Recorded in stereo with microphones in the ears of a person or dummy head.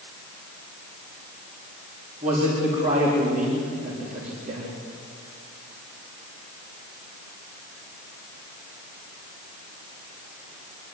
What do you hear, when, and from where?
2.2 s a man speaking: 50° right (ahead or behind), 4.5 m